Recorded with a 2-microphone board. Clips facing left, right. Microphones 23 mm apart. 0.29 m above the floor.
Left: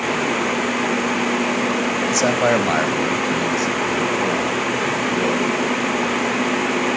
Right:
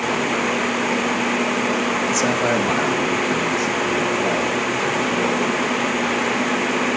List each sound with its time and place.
2.1 s a man speaking: 25° left (ahead or behind), 1.0 m; by 5.6 s 35° left (ahead or behind), 4.5 m